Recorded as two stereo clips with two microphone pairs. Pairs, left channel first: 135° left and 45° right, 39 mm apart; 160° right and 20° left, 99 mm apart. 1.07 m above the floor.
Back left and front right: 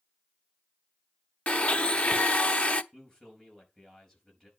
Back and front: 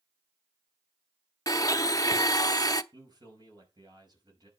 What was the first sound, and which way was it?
A blender, 165° left.